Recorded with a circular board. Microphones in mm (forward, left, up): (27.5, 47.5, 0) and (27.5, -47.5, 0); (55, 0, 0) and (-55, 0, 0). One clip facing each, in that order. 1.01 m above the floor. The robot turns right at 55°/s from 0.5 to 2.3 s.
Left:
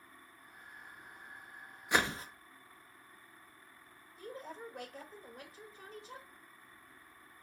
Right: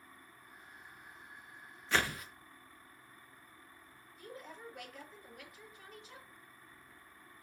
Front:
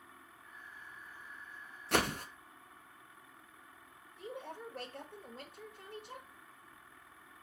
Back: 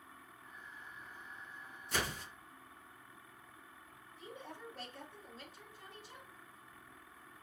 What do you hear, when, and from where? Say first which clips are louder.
1.9 s a whoosh: left 2 dB, front 7 dB; 15° left, 0.6 m; by 2.2 s 35° left, 0.6 m
4.2 s a woman speaking: left 4 dB, front 5 dB; 30° left, 1.0 m